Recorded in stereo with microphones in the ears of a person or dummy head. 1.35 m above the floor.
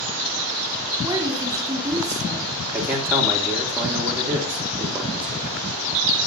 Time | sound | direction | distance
1.0 | a woman speaking | 20° right (ahead or behind) | 3.5 m
2.7 | a man speaking | 10° right (ahead or behind) | 2.5 m